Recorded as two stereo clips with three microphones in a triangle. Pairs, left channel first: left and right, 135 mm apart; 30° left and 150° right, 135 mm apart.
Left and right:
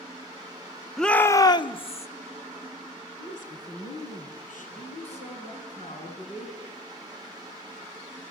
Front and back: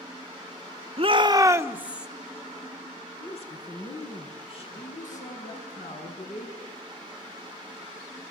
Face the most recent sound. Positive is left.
turn(degrees=55)